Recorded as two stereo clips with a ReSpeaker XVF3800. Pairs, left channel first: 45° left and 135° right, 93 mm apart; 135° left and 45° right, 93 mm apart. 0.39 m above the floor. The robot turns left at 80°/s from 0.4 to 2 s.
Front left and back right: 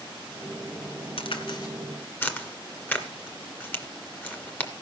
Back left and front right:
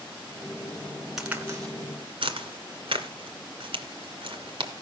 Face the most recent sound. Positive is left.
turn(degrees=-25)